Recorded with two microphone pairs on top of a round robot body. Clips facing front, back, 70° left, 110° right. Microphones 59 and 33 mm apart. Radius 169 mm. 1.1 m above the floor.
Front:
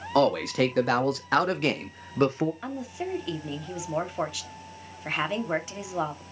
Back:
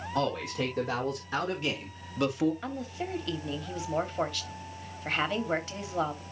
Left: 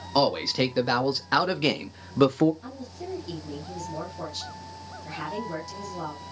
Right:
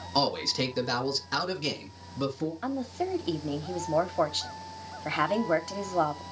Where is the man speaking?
Straight ahead, 2.5 m; by 2.5 s 65° left, 1.1 m.